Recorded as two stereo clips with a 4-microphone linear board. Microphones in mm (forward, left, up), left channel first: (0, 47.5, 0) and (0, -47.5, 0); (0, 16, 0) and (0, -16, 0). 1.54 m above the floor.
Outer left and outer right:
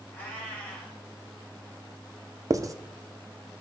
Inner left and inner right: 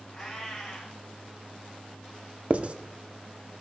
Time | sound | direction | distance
0.1 | a cat meowing | 20° left (ahead or behind) | 3 m
2.5 | writing | 35° right (ahead or behind) | 0.5 m